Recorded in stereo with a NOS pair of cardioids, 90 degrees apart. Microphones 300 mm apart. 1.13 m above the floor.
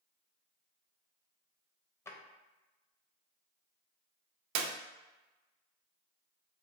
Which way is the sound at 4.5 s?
70° right.